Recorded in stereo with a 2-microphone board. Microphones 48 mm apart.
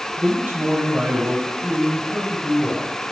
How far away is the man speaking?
About 1.8 m.